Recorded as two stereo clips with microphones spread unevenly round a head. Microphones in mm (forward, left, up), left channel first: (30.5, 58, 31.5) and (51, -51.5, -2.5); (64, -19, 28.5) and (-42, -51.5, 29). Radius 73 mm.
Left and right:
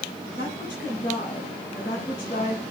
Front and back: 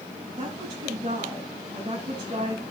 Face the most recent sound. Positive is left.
turn(degrees=135)